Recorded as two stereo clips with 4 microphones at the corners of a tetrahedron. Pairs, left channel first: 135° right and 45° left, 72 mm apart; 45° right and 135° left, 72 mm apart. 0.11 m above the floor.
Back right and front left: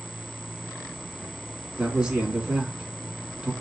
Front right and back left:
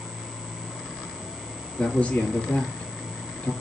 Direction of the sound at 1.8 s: 15° right.